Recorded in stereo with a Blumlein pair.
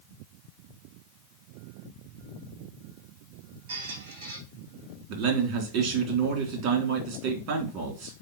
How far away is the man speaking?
About 3.5 m.